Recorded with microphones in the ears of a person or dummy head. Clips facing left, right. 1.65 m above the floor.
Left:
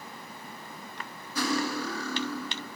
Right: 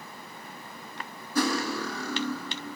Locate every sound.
1.4 s cutlery clinking: 50° right (ahead or behind), 1.5 m